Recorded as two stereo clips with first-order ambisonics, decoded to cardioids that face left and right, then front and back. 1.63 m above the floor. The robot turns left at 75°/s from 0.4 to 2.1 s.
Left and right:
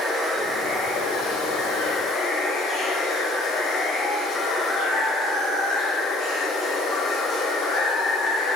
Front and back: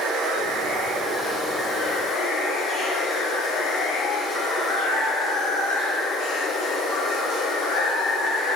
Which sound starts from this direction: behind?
Running water, at 0.0 s.